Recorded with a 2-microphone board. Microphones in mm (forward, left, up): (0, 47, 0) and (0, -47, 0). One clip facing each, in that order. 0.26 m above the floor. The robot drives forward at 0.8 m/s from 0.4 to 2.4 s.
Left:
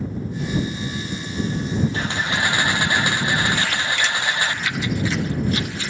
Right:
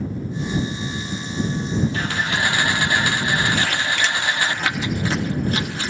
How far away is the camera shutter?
About 1.3 m.